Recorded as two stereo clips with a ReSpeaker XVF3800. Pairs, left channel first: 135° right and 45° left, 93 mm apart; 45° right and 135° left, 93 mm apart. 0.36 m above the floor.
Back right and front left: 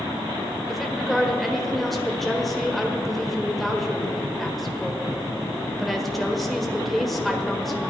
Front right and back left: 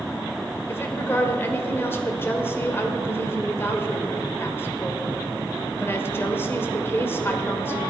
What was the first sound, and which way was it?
A woman speaking, 45° right.